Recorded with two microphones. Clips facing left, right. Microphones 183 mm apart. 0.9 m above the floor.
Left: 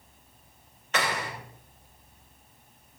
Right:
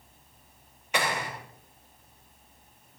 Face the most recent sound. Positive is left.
turn(degrees=-10)  # may be behind; listen again after turning